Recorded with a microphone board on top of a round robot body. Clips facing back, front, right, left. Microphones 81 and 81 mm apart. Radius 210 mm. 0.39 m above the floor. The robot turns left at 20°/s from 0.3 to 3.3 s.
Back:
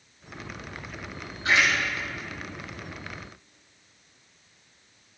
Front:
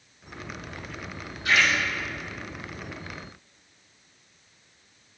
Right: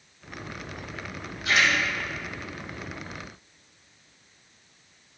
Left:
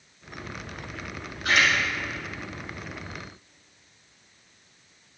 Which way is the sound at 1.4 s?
125° left.